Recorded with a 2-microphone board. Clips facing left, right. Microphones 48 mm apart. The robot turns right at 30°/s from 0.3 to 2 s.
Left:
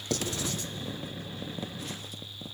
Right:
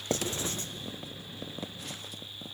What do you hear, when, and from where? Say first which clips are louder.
0.1 s writing: even; 25° right (ahead or behind), 1.6 m; by 0.7 s 40° right (ahead or behind), 1.6 m